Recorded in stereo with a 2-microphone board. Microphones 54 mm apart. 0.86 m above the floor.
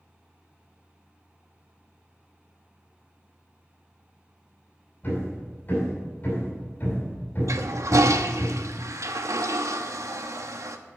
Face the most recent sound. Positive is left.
turn(degrees=-70)  # may be behind; listen again after turning